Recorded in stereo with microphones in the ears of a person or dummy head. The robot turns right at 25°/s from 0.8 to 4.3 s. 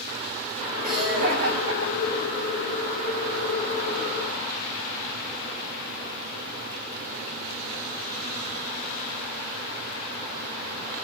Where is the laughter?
40° right (ahead or behind), 7 m; by 2.5 s 85° right, 7 m.